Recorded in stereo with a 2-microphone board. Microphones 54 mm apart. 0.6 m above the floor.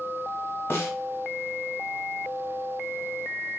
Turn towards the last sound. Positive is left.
turn(degrees=50)  # may be behind; listen again after turning